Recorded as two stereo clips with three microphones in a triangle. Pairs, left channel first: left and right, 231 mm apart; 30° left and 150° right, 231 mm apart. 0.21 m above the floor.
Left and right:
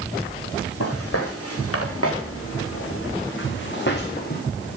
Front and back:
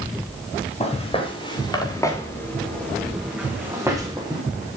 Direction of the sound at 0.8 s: 90° left.